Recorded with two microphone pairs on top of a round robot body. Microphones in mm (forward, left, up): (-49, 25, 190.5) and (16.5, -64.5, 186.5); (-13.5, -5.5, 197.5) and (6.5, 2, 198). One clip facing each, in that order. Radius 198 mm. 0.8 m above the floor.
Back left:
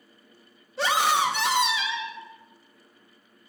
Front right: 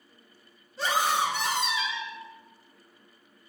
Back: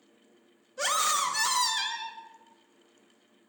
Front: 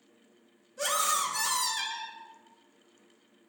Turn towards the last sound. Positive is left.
turn(degrees=135)